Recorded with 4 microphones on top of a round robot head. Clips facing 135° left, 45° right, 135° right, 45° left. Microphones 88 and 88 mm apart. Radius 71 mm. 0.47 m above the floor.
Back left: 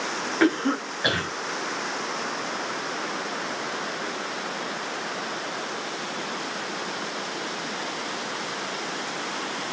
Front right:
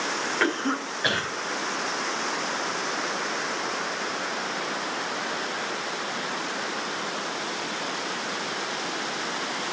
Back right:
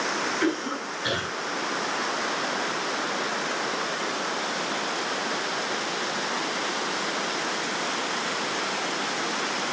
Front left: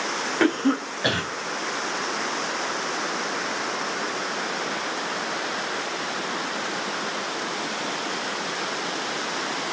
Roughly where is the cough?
Ahead left.